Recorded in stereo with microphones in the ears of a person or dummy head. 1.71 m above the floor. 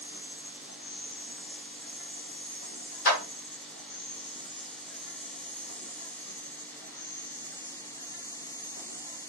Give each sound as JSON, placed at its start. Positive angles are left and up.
{"t": 0.0, "sound": "an insect", "side_deg": 55, "distance_m": 1.0}
{"t": 3.0, "sound": "a clap", "side_deg": 65, "distance_m": 1.4}